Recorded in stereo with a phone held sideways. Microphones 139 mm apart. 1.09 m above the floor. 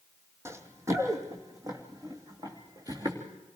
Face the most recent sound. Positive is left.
turn(degrees=-30)  # may be behind; listen again after turning